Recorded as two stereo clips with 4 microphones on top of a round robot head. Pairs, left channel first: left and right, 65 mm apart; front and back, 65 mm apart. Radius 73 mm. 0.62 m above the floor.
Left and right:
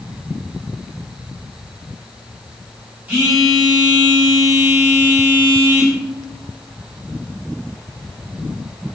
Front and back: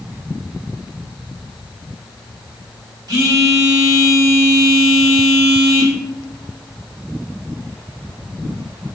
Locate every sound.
3.1 s a phone buzzing: 160° right, 1.5 m